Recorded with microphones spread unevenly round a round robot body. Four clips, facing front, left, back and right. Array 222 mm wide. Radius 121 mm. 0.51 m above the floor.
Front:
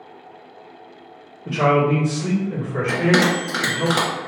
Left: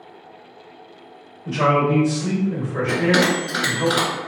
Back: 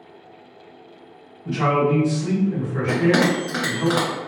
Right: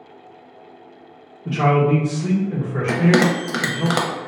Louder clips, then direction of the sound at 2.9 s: Right 2 dB, even; 80° right.